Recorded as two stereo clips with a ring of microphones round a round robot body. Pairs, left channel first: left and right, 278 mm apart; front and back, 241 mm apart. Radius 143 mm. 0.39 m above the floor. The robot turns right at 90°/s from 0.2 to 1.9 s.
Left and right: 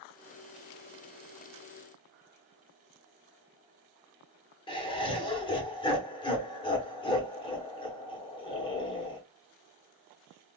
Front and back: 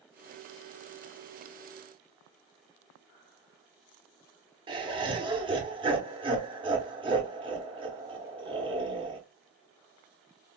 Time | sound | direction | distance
4.7 | laughter | 140° left | 0.9 m